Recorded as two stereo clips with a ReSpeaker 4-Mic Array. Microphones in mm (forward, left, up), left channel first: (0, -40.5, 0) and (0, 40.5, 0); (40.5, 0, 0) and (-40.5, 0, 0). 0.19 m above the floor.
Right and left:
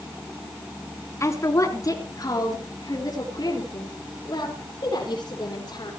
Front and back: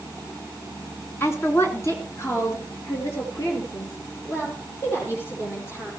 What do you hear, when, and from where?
1.2 s a woman speaking: 50° right, 2 m; by 5.9 s 55° right, 7.5 m